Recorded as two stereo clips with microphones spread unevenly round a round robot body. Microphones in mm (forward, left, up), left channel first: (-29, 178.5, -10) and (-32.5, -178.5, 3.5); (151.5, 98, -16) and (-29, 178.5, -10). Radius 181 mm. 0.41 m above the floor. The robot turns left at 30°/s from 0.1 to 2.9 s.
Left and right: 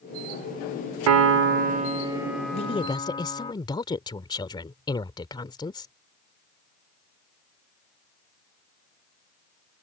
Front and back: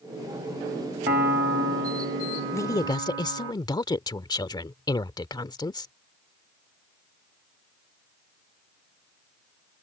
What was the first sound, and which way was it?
A piano, 140° right.